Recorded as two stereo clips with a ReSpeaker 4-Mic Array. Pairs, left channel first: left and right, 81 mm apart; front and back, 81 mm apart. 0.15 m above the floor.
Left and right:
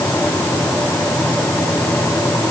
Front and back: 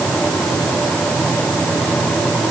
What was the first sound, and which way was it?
Only background noise.